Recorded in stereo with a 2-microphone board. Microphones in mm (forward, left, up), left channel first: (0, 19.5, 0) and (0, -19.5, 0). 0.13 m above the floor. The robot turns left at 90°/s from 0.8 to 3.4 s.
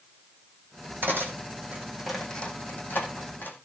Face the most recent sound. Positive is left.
turn(degrees=65)  # may be behind; listen again after turning